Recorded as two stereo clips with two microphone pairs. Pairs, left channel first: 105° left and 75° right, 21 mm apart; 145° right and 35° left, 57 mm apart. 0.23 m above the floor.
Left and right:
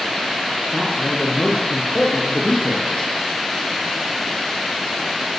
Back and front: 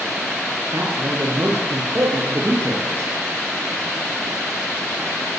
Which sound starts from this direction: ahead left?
A man speaking, at 0.7 s.